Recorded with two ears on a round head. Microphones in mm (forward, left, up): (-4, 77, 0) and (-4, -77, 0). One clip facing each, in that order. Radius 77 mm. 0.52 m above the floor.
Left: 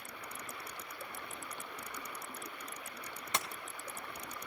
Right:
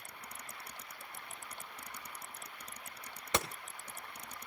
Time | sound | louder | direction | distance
0.0 | running water | left 4 dB | 60° left (ahead or behind) | ?
3.3 | a gunshot | right 5 dB | 65° right (ahead or behind) | ?